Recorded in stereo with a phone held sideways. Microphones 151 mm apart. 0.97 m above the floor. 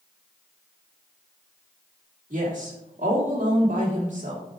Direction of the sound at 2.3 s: 60° right (ahead or behind).